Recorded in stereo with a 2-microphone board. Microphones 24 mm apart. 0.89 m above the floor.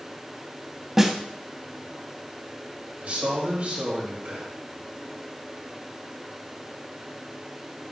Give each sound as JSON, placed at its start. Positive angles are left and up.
{"t": 1.0, "sound": "a snare drum", "side_deg": -10, "distance_m": 0.8}
{"t": 3.0, "sound": "a man speaking", "side_deg": -65, "distance_m": 3.5}